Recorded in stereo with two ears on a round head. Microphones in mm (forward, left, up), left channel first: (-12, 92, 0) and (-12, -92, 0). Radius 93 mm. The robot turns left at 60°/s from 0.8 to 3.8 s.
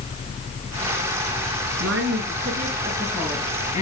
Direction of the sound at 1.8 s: 100° right.